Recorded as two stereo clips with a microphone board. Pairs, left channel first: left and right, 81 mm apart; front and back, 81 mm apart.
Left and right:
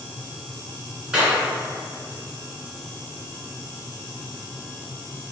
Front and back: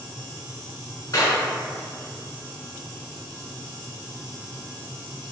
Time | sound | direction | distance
1.1 | a clap | 15° right | 1.5 m